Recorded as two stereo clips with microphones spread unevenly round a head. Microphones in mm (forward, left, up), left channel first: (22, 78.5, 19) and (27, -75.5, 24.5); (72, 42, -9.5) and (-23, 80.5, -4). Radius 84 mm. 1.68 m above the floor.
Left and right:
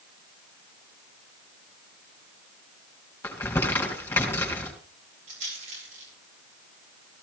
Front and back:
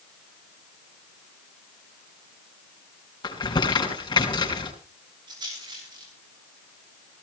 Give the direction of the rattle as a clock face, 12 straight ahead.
5 o'clock.